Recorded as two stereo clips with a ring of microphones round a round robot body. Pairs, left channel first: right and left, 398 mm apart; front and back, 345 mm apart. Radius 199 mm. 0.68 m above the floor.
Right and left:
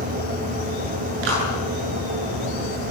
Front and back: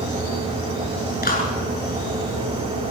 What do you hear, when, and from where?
1.2 s a clap: 65° left, 8.5 m